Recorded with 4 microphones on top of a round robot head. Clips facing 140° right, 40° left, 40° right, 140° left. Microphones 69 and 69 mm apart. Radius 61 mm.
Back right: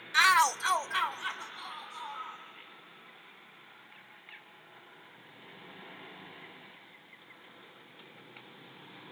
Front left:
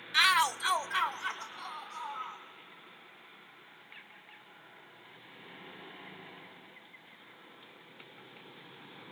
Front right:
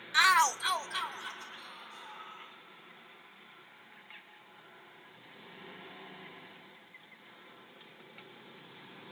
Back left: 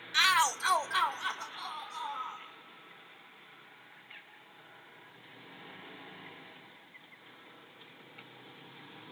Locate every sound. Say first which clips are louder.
0.1 s a shout: back right 3 dB, front right 2 dB; 80° right, 0.9 m; by 2.4 s 120° left, 3 m